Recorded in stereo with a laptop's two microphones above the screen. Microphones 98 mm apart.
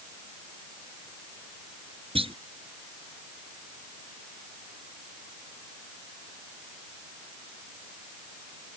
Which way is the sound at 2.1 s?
70° right (ahead or behind).